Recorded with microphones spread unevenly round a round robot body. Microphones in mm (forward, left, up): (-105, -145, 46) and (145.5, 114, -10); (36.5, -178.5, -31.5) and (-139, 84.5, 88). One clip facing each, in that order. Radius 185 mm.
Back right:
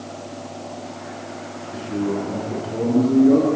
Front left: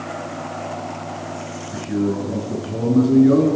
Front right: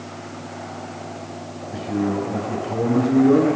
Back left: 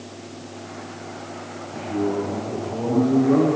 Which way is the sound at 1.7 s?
10° right.